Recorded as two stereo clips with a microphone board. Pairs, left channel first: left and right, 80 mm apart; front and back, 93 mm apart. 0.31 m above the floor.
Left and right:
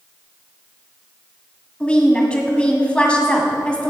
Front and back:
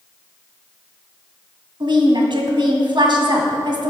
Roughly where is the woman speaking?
Behind.